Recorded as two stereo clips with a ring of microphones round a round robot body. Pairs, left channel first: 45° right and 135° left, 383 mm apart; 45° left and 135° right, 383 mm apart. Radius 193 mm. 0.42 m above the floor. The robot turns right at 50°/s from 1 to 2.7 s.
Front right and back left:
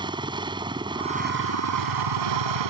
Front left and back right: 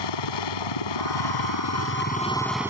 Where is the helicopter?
55° left; by 2.7 s 140° left.